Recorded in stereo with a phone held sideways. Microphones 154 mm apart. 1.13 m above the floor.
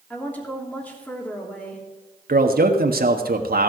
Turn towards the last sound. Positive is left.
turn(degrees=-80)